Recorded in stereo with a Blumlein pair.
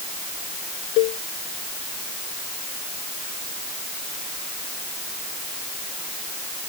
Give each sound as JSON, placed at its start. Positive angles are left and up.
{"t": 1.0, "sound": "a cowbell", "azimuth_deg": 45}